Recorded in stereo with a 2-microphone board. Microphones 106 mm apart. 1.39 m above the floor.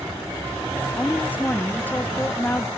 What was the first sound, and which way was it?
A woman speaking, 15° left (ahead or behind).